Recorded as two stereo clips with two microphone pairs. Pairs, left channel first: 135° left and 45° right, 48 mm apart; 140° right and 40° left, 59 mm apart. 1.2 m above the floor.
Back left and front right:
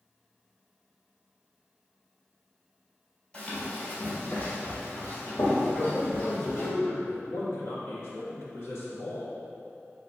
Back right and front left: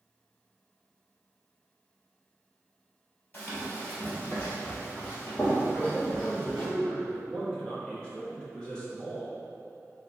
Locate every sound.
3.3 s running footsteps: 170° right, 1.5 m; by 6.7 s 150° left, 3 m
5.7 s a man speaking: 145° left, 1.2 m